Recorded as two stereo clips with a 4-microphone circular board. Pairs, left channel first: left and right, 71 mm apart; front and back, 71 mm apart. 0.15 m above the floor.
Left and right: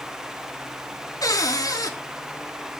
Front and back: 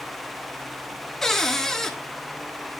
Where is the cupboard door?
85° left, 1.0 m.